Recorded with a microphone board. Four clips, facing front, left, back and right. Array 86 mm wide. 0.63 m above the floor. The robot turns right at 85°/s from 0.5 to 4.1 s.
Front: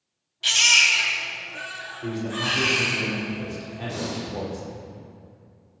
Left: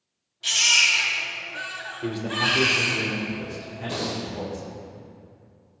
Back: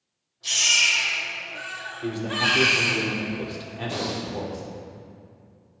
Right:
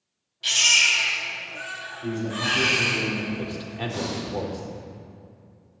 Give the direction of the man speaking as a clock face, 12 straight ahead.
9 o'clock.